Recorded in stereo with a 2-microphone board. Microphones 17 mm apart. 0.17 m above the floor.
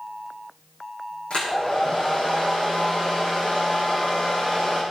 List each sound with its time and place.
1.3 s a hair dryer: 75° left (ahead or behind), 5 m